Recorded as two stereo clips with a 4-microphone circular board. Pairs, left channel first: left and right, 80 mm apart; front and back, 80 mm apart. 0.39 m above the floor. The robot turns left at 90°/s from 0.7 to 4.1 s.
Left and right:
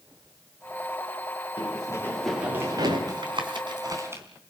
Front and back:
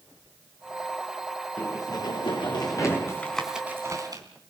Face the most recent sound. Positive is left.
turn(degrees=-150)